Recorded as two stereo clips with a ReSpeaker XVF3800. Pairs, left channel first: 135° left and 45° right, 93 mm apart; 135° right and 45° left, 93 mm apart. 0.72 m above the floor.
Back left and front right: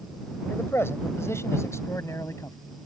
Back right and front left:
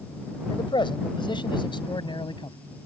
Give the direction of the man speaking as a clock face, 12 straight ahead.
5 o'clock.